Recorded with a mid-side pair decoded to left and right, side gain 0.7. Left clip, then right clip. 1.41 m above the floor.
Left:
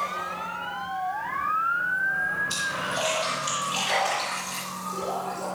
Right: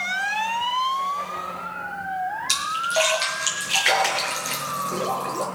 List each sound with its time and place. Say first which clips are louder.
2.5 s a splash: right 5 dB; 70° right, 6 m